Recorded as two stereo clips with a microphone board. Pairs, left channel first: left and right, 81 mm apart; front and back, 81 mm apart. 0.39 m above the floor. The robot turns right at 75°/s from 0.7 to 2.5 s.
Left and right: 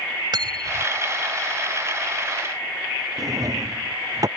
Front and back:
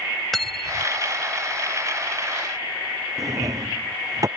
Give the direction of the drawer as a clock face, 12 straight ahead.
4 o'clock.